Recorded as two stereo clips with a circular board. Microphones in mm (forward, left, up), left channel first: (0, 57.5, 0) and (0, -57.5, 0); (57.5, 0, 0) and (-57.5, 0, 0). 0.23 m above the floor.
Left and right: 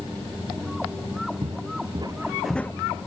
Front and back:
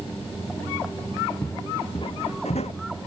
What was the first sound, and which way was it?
Footsteps, 65° right.